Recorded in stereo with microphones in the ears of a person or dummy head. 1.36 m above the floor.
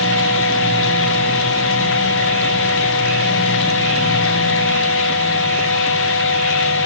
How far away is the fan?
About 1.9 m.